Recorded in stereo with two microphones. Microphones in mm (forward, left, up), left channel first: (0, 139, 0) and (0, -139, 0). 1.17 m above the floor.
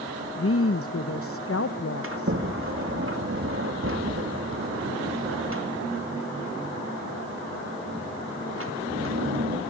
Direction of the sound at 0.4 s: 50° left (ahead or behind).